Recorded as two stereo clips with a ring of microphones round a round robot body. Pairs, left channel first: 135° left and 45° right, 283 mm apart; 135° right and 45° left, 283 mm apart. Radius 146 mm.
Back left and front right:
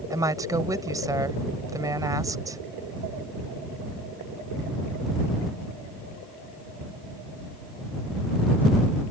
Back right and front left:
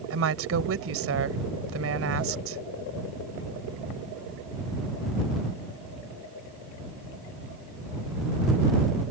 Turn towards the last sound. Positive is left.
turn(degrees=30)